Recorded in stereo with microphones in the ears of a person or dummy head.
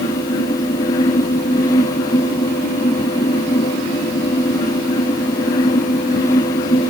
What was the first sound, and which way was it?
Only background noise.